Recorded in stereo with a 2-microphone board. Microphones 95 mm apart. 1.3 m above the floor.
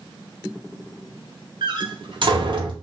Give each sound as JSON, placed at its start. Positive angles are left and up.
{"t": 1.6, "sound": "a door slam", "side_deg": -55, "distance_m": 0.8}